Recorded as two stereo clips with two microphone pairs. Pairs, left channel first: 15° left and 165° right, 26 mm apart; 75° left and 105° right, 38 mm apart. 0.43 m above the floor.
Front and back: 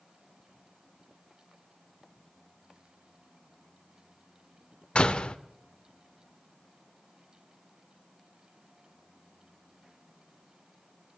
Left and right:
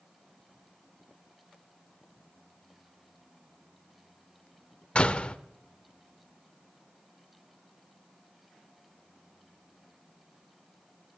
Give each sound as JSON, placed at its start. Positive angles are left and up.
{"t": 5.0, "sound": "a door slam", "azimuth_deg": 30, "distance_m": 0.6}